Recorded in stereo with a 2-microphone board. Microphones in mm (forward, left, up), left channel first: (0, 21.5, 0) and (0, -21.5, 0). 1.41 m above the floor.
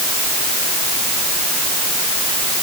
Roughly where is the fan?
I don't hear a fan.